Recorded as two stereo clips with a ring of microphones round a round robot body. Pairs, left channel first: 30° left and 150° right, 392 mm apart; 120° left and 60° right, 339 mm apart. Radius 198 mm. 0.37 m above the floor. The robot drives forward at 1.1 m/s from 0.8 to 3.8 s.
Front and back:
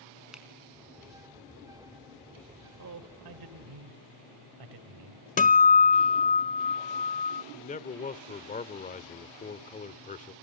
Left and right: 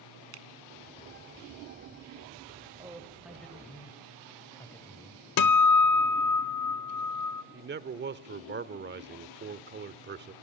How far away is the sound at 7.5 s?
About 1.0 m.